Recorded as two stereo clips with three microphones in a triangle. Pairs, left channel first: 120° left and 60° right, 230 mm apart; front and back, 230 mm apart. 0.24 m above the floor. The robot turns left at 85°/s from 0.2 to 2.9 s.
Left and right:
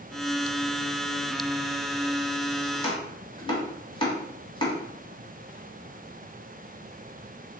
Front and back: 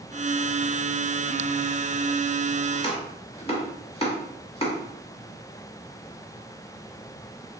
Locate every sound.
2.7 s chopping: 70° left, 1.1 m; by 4.8 s 55° left, 1.1 m